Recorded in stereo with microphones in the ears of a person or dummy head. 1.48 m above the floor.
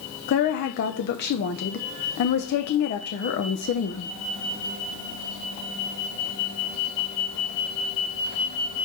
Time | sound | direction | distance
0.3 | a woman speaking | 60° left (ahead or behind) | 0.8 m